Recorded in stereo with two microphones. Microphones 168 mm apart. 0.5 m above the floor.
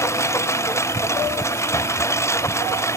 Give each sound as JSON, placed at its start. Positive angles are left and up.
{"t": 0.0, "sound": "a lawn mower", "side_deg": 15}